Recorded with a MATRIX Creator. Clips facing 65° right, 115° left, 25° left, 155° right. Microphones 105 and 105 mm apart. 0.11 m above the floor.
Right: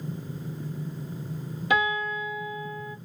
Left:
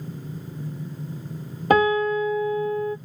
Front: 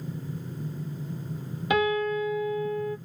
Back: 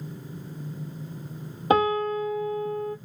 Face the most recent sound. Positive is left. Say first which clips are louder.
# left 8 dB, back 3 dB
turn(degrees=155)